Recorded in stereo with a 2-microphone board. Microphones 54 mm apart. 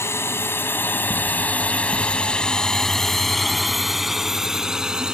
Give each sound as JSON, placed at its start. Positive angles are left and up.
{"t": 0.0, "sound": "a drone", "side_deg": 50}